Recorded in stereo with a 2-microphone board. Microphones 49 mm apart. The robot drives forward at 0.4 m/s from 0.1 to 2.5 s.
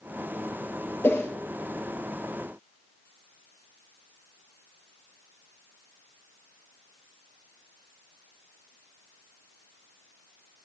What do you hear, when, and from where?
1.0 s a whoosh: 50° left (ahead or behind), 1.2 m; by 1.3 s 55° left (ahead or behind), 1.1 m